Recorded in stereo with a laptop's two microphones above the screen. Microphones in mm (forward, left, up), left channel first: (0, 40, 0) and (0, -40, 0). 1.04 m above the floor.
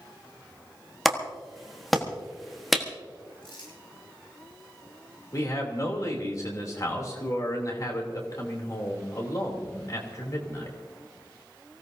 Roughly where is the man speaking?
Left.